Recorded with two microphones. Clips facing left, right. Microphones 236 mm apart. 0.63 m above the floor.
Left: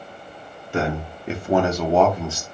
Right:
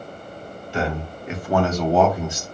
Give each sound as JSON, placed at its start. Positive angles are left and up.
{"t": 0.7, "sound": "a man speaking", "side_deg": 55, "distance_m": 1.2}